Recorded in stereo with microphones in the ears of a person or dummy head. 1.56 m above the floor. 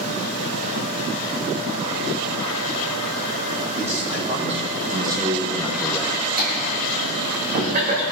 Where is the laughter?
40° right (ahead or behind), 2.0 m.